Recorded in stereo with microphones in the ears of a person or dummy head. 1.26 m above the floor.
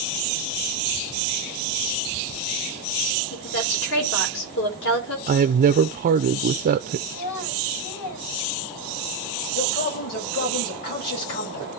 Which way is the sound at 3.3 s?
65° left (ahead or behind).